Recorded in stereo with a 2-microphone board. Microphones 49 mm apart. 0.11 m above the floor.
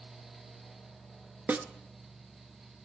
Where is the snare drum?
35° right (ahead or behind), 0.6 m.